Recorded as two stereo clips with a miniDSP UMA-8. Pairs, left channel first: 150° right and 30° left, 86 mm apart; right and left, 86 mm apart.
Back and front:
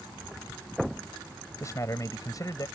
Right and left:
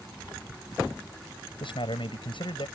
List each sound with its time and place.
1.6 s a man speaking: 95° right; by 2.7 s 105° right